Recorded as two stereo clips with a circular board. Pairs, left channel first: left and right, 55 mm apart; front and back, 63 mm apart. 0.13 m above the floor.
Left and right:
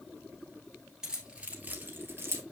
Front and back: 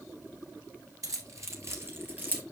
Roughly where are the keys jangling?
Behind.